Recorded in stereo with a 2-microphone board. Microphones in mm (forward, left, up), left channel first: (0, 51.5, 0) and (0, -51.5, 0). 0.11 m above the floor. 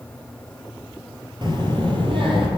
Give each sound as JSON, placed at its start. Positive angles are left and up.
{"t": 1.4, "sound": "a child speaking", "side_deg": -45, "distance_m": 1.6}